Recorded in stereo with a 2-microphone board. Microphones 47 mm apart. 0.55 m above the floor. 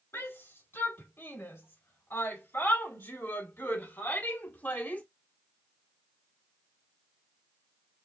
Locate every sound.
0.1 s a shout: 65° left (ahead or behind), 3.5 m; by 5.0 s 40° left (ahead or behind), 1.7 m